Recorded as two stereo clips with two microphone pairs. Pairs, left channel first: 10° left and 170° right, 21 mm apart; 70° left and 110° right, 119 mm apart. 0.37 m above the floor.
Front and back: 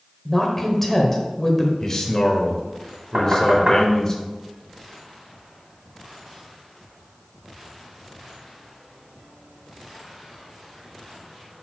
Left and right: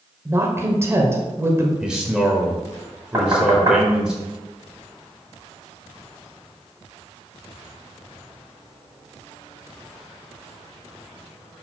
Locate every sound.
0.2 s a woman speaking: 55° right, 1.3 m
1.8 s a man speaking: 30° right, 1.1 m
3.1 s knocking: 165° right, 2 m